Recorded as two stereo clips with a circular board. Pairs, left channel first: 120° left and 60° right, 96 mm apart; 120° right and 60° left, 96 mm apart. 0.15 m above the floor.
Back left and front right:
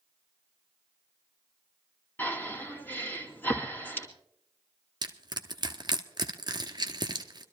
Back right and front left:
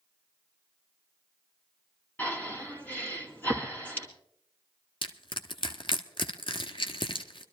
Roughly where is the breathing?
Behind.